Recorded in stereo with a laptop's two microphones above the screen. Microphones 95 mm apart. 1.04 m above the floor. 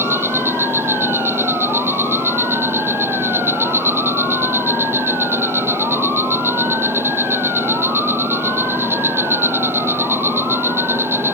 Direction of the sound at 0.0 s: 25° right (ahead or behind).